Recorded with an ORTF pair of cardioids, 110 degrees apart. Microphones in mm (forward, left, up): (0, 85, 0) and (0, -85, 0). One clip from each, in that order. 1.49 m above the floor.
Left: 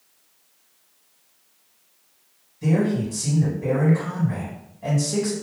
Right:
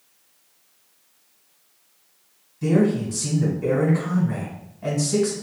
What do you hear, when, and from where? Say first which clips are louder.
2.6 s a man speaking: right 3 dB; 20° right, 1.6 m